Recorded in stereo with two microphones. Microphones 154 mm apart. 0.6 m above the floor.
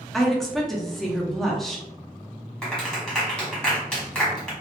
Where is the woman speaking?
Centre (ahead or behind), 0.5 m.